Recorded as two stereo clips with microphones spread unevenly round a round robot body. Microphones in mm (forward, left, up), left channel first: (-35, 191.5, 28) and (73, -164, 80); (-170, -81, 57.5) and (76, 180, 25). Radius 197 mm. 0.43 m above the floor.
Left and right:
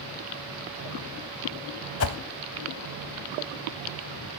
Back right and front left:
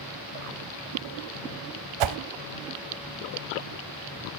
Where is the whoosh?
50° left, 0.8 m.